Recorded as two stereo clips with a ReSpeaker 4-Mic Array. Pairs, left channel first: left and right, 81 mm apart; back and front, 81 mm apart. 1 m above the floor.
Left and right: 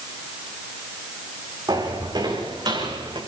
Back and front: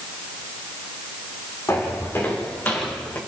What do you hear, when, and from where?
1.7 s footsteps: 125° right, 4.5 m; by 3.2 s 110° right, 5 m